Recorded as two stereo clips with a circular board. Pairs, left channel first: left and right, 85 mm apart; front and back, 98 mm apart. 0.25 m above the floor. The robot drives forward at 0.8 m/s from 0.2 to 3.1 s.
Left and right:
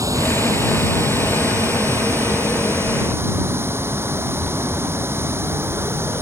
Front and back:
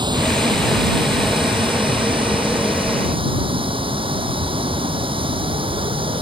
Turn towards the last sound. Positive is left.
turn(degrees=-150)